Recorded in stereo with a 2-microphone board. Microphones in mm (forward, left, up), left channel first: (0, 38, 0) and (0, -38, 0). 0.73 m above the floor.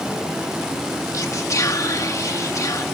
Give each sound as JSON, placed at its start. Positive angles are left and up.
{"t": 1.1, "sound": "whispering", "side_deg": 45, "distance_m": 0.8}